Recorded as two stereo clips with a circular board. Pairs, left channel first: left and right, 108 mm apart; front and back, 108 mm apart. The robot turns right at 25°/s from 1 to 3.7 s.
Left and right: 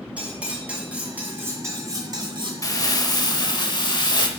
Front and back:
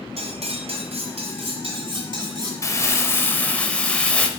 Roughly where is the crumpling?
Ahead left.